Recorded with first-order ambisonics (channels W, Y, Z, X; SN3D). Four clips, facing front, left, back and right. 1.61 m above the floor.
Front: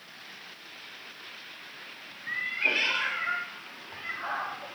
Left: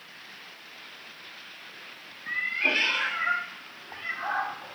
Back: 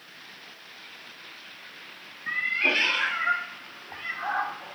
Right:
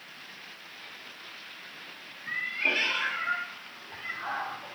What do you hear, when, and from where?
2.3 s a cat meowing: 165° left, 1.3 m; by 4.8 s 140° left, 2.5 m